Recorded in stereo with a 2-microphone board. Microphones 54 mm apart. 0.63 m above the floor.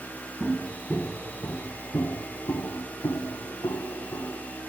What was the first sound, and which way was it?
Footsteps, 10° right (ahead or behind).